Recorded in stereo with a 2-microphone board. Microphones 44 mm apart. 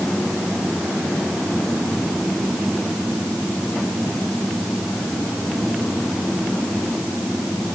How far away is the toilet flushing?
No toilet flushing in this recording.